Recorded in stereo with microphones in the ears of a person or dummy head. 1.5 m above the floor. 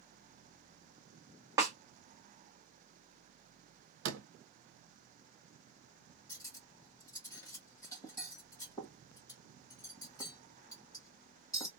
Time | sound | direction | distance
1.6 | a snare drum | 15° right (ahead or behind) | 0.8 m
4.0 | a door slam | 65° right (ahead or behind) | 0.9 m
6.3 | cutlery clinking | 15° left (ahead or behind) | 1.2 m